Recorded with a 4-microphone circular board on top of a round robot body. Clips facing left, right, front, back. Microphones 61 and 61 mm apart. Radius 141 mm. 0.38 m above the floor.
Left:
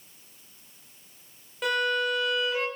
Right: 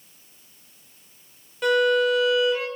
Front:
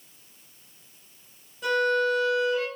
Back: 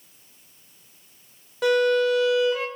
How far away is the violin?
About 0.6 m.